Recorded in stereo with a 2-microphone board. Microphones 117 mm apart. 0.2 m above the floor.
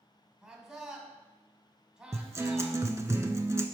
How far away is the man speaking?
About 1.1 m.